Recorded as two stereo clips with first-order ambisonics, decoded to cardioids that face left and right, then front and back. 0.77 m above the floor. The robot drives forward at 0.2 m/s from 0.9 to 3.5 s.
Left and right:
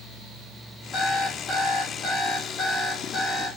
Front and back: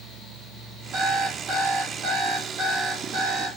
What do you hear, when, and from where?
0.9 s an alarm clock: 145° left, 1.0 m; by 3.5 s 160° left, 1.4 m